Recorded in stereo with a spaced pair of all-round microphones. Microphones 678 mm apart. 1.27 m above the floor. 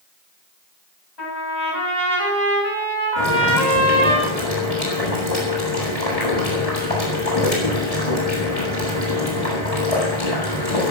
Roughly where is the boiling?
Left.